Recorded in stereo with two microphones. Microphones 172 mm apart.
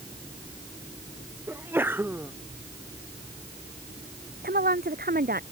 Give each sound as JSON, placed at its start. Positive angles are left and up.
{"t": 1.5, "sound": "a sneeze", "side_deg": -10}
{"t": 4.4, "sound": "a woman speaking", "side_deg": -60}